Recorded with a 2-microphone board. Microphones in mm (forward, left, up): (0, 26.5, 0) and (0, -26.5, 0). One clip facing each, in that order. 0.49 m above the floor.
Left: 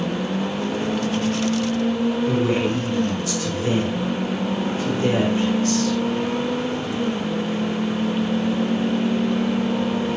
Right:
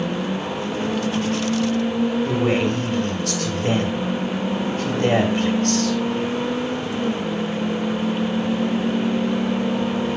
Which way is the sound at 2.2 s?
65° right (ahead or behind).